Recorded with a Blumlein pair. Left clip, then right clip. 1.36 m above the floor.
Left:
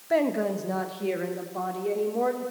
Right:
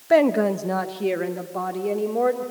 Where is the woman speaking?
20° right, 1.3 m; by 2.5 s 10° right, 3.5 m.